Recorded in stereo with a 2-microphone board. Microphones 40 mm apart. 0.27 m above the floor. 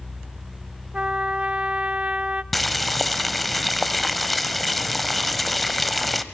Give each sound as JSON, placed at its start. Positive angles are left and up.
{"t": 0.9, "sound": "a trumpet", "side_deg": -25, "distance_m": 0.5}
{"t": 2.5, "sound": "boiling", "side_deg": 0, "distance_m": 1.0}